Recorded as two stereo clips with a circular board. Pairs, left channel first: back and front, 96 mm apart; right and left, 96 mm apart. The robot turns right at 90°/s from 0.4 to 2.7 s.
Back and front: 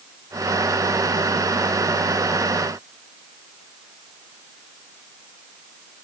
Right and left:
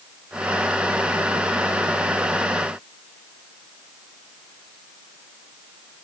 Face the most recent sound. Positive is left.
No sound to turn to.